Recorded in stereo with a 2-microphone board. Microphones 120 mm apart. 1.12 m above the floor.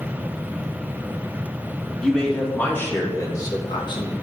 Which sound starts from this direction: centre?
A man speaking, at 2.0 s.